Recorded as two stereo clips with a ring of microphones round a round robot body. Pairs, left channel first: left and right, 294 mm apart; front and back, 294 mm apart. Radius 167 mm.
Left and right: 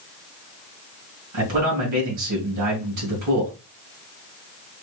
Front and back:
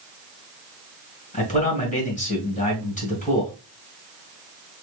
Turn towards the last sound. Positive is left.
turn(degrees=-65)